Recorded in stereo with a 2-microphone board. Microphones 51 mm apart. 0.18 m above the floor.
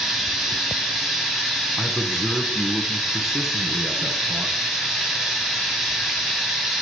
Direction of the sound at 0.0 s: 5° right (ahead or behind).